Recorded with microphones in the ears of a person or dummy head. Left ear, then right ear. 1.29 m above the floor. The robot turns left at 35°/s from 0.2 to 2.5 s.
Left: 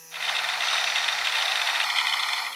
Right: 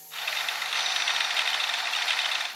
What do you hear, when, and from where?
Only background noise.